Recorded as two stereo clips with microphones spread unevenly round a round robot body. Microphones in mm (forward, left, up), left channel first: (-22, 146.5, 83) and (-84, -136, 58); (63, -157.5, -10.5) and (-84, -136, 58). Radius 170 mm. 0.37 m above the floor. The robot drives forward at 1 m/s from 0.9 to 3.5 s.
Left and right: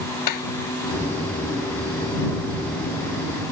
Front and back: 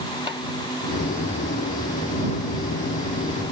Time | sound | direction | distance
0.3 | tapping | 90° left | ?